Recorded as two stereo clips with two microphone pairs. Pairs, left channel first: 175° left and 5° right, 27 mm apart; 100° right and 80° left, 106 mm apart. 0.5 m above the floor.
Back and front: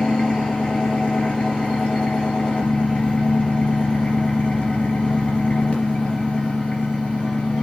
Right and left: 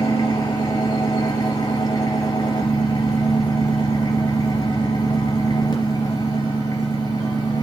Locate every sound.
0.0 s an engine running: 150° right, 3.5 m